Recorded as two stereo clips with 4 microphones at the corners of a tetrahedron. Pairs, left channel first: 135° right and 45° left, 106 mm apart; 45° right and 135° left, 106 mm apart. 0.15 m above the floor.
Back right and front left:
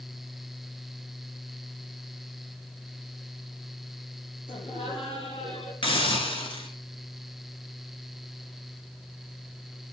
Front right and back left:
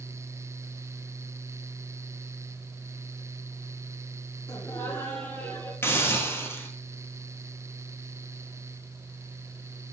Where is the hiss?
110° right, 1.9 m.